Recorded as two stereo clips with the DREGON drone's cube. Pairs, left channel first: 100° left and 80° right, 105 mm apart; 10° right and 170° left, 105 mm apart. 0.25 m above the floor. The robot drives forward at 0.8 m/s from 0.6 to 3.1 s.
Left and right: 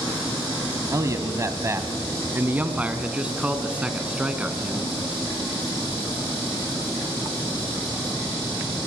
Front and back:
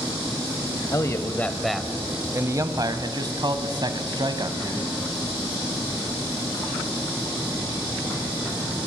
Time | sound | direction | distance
0.9 | a man speaking | 45° right | 1.2 m